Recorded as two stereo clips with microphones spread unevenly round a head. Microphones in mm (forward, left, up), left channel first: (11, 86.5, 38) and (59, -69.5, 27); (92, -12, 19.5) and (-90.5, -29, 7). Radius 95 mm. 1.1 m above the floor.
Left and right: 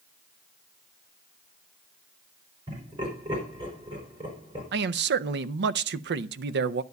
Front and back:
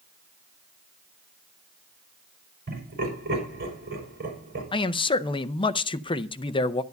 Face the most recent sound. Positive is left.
turn(degrees=-60)